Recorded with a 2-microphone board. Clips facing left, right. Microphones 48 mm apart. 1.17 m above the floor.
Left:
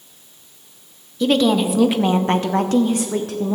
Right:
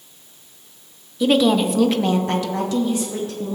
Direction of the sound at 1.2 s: 15° right (ahead or behind).